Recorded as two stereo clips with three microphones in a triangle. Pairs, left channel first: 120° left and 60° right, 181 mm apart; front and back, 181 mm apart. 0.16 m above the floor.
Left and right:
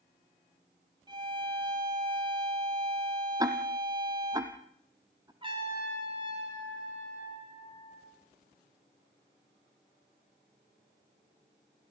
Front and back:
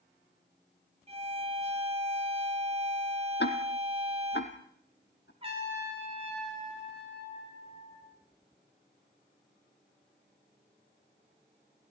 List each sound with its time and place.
1.1 s a violin: 125° right, 3.5 m
3.4 s ticking: 10° left, 2.5 m
5.4 s a trumpet: 120° right, 10 m